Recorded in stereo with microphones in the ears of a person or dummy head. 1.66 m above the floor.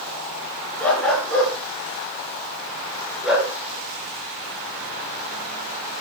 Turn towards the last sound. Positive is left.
turn(degrees=5)  # may be behind; listen again after turning